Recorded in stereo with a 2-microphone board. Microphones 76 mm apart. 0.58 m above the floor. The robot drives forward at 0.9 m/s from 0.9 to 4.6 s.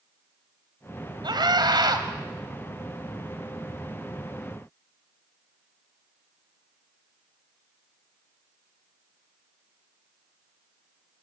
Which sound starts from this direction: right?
A scream, at 1.2 s.